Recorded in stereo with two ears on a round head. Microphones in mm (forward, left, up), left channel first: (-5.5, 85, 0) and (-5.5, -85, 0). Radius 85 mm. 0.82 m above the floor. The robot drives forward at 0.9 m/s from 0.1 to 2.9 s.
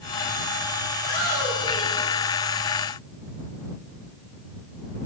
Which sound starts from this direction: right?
A shout, at 0.9 s.